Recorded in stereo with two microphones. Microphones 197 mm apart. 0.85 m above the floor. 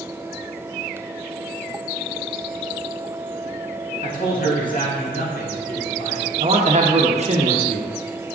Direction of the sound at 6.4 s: 35° right (ahead or behind).